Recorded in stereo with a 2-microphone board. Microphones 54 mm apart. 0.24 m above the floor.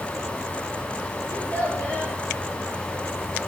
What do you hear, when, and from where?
1.3 s a child speaking: 30° left (ahead or behind), 4.5 m